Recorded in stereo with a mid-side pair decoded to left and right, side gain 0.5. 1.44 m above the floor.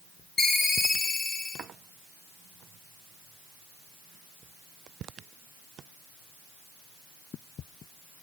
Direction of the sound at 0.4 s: 45° left.